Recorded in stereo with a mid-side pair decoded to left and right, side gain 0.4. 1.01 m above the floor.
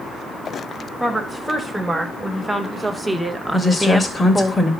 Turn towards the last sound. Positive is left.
turn(degrees=25)